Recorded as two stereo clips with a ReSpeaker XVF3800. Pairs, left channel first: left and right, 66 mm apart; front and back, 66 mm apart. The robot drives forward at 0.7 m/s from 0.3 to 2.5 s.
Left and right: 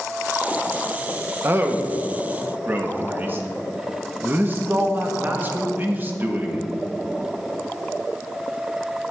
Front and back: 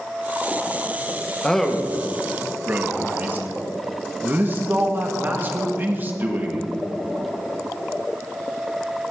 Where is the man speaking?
70° right, 1.0 m; by 6.7 s 135° right, 1.1 m.